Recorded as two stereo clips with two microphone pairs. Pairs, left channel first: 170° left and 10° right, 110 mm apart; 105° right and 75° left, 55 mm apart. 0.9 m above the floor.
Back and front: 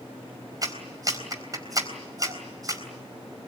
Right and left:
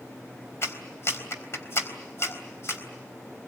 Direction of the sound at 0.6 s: 65° right.